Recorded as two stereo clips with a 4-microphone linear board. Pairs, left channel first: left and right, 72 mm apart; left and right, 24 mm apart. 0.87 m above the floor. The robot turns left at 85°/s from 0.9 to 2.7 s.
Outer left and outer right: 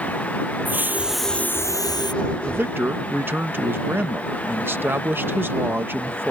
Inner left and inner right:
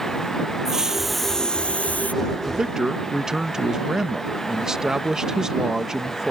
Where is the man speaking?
35° right (ahead or behind); by 6.3 s 30° right (ahead or behind).